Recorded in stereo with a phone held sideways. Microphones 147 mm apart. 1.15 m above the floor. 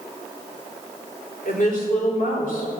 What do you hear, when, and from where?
1.4 s a woman speaking: 70° left (ahead or behind), 3.5 m